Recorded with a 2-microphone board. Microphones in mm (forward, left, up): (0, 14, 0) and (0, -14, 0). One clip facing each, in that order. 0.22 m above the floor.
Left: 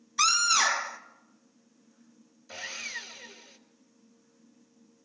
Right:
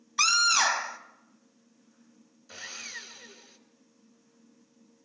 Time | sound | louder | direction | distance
0.2 | a scream | right 1 dB | 20° right (ahead or behind) | 1.0 m
2.5 | sawing | left 3 dB | centre (ahead or behind) | 1.8 m